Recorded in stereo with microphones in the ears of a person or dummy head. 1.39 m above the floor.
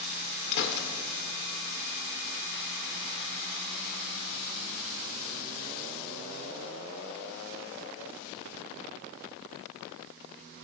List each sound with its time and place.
0.5 s a gunshot: 60° left (ahead or behind), 2.5 m